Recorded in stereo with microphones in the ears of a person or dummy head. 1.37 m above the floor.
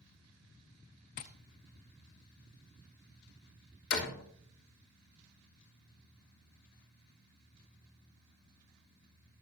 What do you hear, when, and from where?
1.2 s tapping: 40° left (ahead or behind), 0.9 m
3.9 s a door slam: 65° left (ahead or behind), 3 m